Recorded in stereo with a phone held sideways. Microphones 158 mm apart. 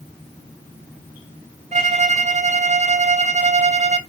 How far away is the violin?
About 0.6 m.